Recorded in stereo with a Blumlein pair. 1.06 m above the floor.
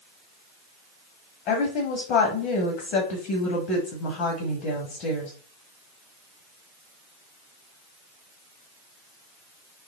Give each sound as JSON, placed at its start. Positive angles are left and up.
{"t": 1.5, "sound": "a woman speaking", "azimuth_deg": 35, "distance_m": 1.5}